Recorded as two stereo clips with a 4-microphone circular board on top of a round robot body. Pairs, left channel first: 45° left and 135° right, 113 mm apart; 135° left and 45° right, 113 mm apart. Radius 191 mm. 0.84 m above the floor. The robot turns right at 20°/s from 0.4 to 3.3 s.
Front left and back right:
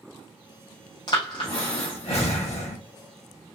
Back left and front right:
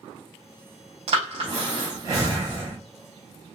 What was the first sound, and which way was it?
Breathing, 10° right.